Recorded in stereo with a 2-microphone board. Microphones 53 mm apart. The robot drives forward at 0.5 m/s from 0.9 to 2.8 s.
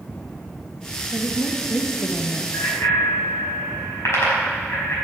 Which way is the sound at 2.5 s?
55° left (ahead or behind).